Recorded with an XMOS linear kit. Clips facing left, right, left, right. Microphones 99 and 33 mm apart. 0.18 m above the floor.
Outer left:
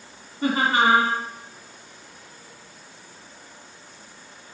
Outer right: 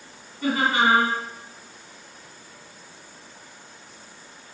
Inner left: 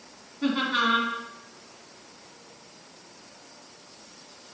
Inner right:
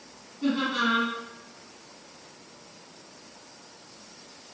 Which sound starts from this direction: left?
Laughter, at 0.4 s.